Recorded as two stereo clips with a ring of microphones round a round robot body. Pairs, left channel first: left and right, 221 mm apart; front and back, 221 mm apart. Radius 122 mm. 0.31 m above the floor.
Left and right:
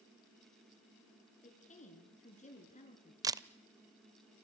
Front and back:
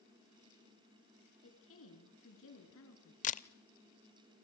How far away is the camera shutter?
About 0.6 m.